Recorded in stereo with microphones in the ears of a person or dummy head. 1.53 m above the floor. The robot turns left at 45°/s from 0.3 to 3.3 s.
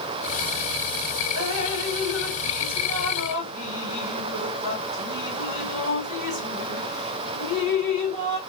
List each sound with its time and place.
1.4 s dripping: 65° right (ahead or behind), 1.7 m; by 8.4 s 25° right (ahead or behind), 1.7 m